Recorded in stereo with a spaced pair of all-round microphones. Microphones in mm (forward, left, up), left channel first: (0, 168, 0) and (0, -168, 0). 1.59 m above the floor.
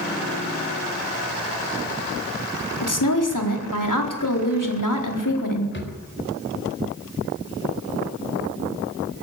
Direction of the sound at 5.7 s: 35° left (ahead or behind).